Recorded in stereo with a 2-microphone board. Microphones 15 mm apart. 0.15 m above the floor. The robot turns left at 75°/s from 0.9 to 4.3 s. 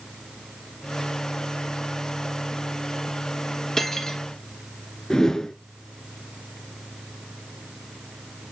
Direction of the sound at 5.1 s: 40° left (ahead or behind).